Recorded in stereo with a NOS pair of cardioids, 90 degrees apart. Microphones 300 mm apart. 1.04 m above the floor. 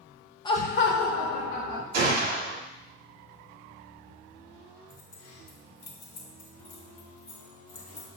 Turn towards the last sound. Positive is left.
turn(degrees=55)